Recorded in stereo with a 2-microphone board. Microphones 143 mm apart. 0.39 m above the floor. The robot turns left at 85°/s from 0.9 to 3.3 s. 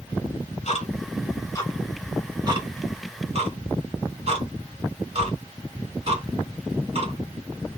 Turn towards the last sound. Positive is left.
turn(degrees=-50)  # may be behind; listen again after turning